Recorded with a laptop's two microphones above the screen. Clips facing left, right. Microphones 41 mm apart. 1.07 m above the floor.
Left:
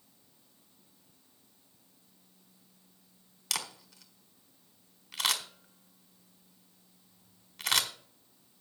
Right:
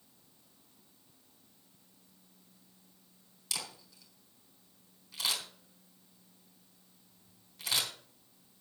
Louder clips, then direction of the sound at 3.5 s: Left 4 dB; 65° left (ahead or behind).